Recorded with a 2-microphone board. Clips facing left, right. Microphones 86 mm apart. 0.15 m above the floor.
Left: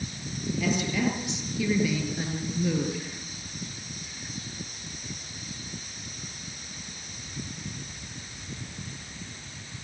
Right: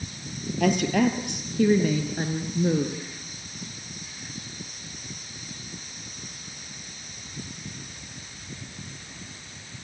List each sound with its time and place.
0.6 s a woman speaking: 65° right (ahead or behind), 4 m; by 3.1 s 25° right (ahead or behind), 3.5 m